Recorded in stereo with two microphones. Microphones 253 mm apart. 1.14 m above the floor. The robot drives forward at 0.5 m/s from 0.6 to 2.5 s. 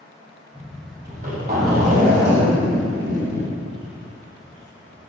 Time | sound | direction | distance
1.0 | a zipper | 35° right (ahead or behind) | 3 m